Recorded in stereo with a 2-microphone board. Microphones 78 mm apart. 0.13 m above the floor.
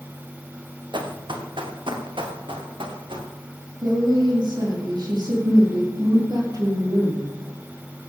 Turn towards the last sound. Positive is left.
turn(degrees=-60)  # may be behind; listen again after turning